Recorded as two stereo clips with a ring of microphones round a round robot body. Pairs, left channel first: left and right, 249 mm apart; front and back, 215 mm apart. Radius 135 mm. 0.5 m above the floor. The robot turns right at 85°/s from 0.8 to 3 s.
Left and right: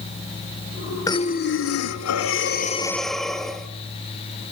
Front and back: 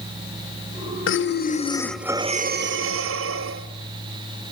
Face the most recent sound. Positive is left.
turn(degrees=180)